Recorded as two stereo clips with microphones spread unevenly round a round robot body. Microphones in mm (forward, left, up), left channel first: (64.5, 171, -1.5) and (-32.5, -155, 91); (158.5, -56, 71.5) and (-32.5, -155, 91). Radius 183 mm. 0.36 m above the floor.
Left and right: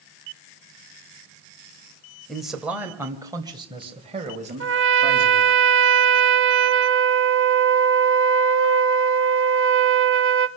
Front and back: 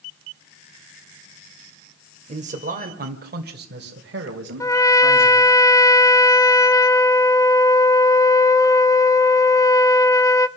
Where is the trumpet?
45° right, 1.2 m.